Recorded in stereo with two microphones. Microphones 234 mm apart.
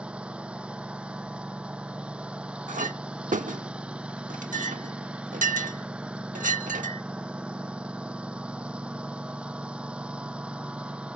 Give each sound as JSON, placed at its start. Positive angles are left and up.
{"t": 0.0, "sound": "a lawn mower", "side_deg": -5}
{"t": 2.7, "sound": "a clink", "side_deg": -35}